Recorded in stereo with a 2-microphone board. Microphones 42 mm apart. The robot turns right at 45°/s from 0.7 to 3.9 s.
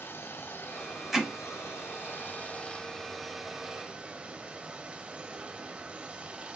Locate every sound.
0.0 s running water: 60° left, 1.1 m; by 6.6 s 155° right, 1.1 m
1.1 s hammering: 5° right (ahead or behind), 5 m; by 1.3 s centre (ahead or behind), 5 m